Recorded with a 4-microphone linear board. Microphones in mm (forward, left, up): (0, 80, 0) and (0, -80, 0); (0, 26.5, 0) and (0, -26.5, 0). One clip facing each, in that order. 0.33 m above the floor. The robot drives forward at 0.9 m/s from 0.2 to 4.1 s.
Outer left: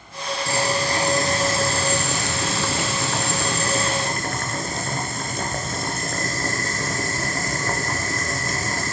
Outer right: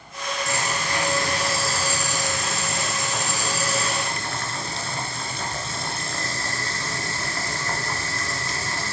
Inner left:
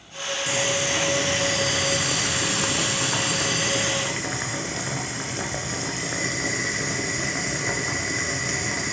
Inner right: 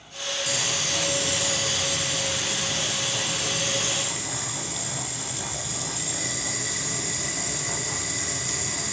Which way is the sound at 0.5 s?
35° left (ahead or behind).